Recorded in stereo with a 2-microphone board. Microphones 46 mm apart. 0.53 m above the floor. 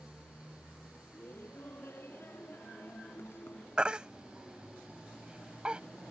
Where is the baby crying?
20° right (ahead or behind).